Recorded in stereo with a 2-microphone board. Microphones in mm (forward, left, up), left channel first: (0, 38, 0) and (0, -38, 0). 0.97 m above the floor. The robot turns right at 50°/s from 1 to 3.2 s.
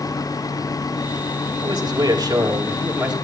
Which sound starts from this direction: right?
A man speaking, at 1.6 s.